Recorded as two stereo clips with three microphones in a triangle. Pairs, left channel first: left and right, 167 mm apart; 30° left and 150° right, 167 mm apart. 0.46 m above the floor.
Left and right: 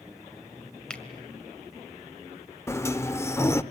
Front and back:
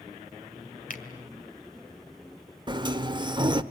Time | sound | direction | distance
0.9 | a finger snap | 5° left | 2.0 m
2.7 | a sliding door | 160° left | 0.7 m